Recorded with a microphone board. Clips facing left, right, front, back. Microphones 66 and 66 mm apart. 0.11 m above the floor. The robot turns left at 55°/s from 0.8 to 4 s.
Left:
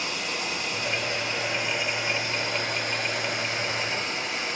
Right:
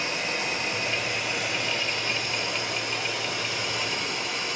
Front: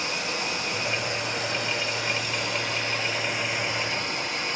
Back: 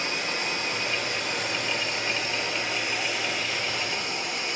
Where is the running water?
135° right, 2.0 m; by 4.6 s 50° left, 2.0 m.